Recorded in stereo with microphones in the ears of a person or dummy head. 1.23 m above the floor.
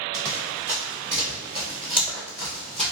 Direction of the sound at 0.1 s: 15° right (ahead or behind).